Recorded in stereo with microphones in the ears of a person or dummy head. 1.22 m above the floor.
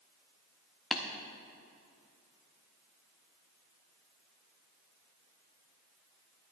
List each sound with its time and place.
0.9 s tapping: centre (ahead or behind), 0.7 m